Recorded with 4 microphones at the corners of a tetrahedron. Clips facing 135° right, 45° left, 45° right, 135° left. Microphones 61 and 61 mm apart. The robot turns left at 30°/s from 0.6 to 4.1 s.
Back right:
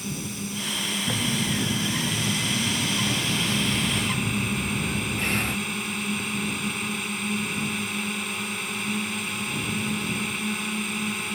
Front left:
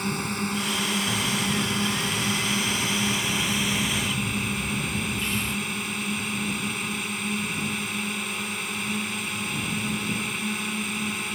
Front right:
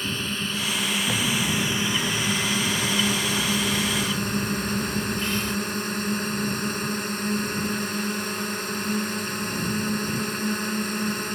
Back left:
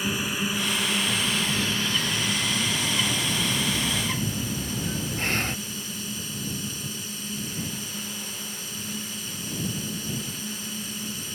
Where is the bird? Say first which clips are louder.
Even, front right 2 dB; 90° right; by 5.6 s straight behind.